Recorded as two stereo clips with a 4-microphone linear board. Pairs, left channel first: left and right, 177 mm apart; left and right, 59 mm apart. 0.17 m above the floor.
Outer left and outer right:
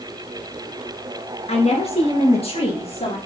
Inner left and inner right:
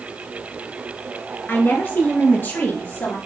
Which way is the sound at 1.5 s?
35° left (ahead or behind).